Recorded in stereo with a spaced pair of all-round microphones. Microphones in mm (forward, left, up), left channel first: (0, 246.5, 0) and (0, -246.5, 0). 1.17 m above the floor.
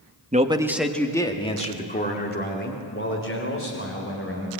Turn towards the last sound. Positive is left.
turn(degrees=30)  # may be behind; listen again after turning